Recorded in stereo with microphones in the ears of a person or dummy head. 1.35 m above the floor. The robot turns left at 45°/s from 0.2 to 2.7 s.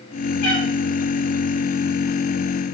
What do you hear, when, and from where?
0.4 s a cat meowing: 60° left (ahead or behind), 1.5 m